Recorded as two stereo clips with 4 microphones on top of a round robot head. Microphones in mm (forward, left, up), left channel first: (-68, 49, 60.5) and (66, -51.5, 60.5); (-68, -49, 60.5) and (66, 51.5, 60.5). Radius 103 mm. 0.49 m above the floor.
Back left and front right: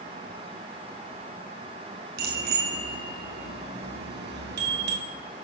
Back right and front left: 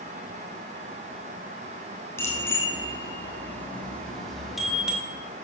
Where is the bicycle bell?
65° right, 3.5 m; by 5.0 s 45° right, 1.7 m.